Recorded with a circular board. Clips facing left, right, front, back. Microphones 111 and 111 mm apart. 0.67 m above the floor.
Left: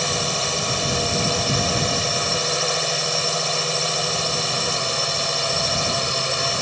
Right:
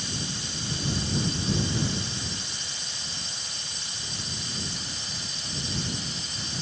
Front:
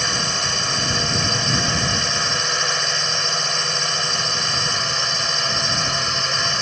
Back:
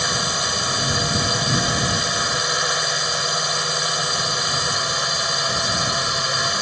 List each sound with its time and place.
0.0 s a drone: 100° left